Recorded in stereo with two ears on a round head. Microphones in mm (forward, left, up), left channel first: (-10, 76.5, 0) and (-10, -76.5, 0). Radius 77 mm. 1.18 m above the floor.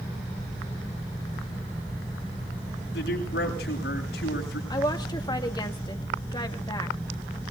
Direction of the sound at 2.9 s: 75° left (ahead or behind).